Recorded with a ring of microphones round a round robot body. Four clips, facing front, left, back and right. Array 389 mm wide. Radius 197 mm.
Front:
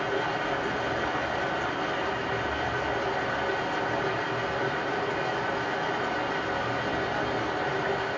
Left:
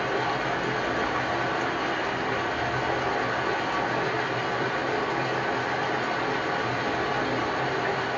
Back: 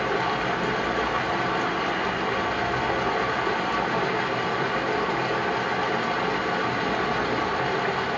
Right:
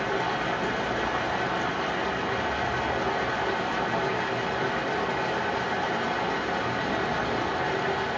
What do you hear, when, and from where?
0.0 s running water: 175° left, 0.8 m